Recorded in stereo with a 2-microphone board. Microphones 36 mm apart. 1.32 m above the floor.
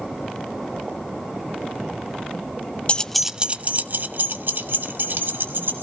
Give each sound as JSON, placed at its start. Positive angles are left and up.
{"t": 2.9, "sound": "keys jangling", "side_deg": 30, "distance_m": 0.6}